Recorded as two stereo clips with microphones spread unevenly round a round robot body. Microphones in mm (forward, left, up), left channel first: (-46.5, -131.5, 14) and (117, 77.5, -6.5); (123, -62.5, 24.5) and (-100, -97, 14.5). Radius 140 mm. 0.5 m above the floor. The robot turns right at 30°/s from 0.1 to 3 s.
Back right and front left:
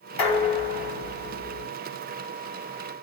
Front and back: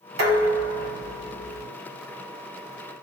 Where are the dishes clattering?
150° right, 2 m; by 1.7 s 105° right, 2 m.